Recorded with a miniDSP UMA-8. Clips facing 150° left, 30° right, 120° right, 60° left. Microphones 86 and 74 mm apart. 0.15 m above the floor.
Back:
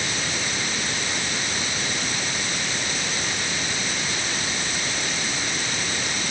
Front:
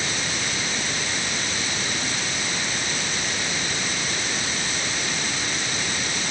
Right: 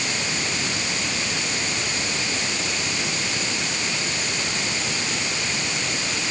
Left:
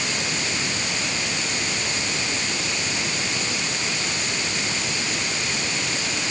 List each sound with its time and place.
Only background noise.